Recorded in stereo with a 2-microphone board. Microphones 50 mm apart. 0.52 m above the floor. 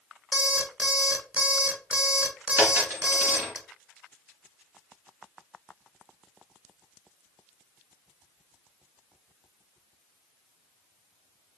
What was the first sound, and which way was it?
An alarm clock, 20° right (ahead or behind).